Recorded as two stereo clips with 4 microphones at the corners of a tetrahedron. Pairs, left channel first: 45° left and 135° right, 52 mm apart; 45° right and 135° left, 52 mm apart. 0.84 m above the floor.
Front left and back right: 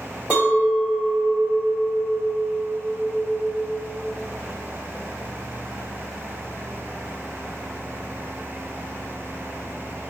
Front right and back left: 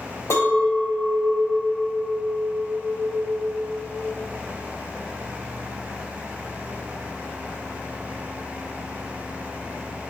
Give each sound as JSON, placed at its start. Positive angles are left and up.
{"t": 0.3, "sound": "a clink", "azimuth_deg": -65, "distance_m": 1.8}